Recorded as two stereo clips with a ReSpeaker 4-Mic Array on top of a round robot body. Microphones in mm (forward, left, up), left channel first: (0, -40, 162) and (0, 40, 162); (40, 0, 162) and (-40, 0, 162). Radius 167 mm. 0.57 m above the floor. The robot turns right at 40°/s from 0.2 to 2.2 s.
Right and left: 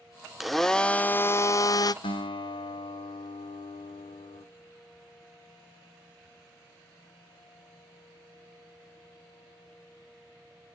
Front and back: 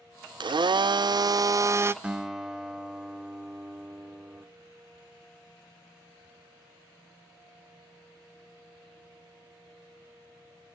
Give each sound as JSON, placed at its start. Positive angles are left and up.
{"t": 0.4, "sound": "a blender", "azimuth_deg": 175, "distance_m": 0.5}
{"t": 2.0, "sound": "a guitar", "azimuth_deg": -105, "distance_m": 0.7}